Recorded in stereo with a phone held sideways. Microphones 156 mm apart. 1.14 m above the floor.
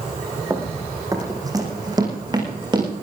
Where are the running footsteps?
15° right (ahead or behind), 3.5 m; by 2.9 s 30° right (ahead or behind), 6 m.